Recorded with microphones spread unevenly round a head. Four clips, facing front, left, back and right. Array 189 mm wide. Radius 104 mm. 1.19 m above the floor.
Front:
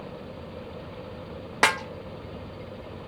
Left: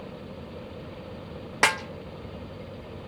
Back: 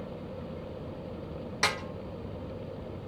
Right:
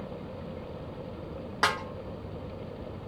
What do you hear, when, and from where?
1.6 s a snare drum: 20° left, 1.5 m